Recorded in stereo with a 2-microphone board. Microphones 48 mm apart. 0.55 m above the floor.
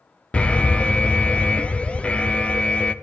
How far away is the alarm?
About 0.7 m.